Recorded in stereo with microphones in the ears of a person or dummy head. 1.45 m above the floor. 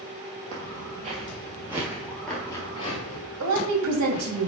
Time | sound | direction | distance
0.5 | footsteps | 40° right (ahead or behind) | 2.5 m
3.4 | a woman speaking | 85° right | 2 m